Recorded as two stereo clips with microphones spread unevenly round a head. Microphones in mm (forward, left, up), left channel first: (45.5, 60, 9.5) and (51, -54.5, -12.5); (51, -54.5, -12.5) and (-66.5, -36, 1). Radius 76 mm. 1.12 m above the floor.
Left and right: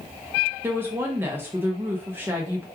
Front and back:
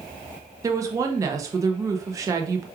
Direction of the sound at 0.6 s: 135° right.